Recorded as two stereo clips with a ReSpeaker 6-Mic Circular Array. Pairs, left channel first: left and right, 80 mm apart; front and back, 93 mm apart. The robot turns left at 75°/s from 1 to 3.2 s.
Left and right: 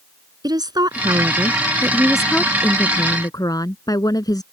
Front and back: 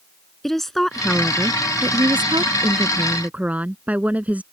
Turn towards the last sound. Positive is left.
turn(degrees=110)